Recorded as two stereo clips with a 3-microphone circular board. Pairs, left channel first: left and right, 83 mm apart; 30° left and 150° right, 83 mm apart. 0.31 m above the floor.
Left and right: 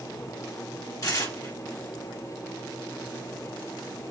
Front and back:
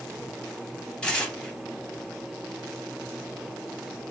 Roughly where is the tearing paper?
Left.